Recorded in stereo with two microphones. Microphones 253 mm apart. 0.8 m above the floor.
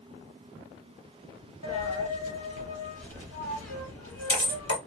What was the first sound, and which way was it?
A dropped coin, 70° left (ahead or behind).